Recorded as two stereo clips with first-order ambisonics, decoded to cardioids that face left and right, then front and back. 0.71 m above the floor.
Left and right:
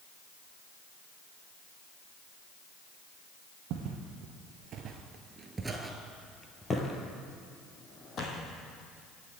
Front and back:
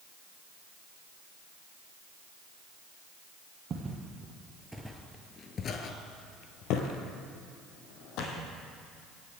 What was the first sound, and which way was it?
Footsteps, 115° right.